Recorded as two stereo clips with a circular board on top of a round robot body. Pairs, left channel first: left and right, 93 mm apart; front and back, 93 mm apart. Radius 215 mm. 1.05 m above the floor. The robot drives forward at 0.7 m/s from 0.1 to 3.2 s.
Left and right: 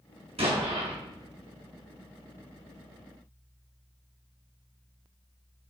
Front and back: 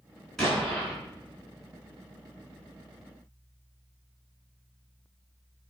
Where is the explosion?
85° right, 4.5 m; by 0.9 s 90° right, 4.5 m.